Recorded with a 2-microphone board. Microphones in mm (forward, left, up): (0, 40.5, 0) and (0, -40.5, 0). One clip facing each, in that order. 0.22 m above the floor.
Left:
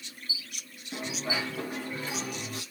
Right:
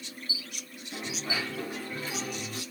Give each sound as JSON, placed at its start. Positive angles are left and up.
{"t": 0.9, "sound": "a dropped coin", "side_deg": 15, "distance_m": 4.5}